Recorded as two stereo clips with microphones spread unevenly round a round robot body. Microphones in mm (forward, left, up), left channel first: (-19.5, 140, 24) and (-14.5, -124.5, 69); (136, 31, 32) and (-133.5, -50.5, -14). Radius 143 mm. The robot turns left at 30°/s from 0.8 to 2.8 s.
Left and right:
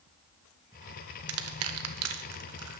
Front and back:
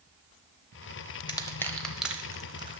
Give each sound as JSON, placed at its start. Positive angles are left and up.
{"t": 1.3, "sound": "crushing", "azimuth_deg": -65, "distance_m": 0.9}